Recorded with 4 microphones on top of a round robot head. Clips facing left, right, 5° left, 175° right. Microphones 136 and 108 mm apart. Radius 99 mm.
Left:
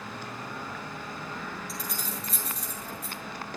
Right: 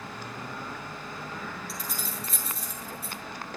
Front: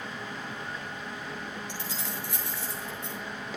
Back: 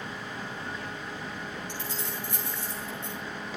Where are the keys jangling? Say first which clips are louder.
Left 1 dB, back 1 dB; 5° right, 8.5 m.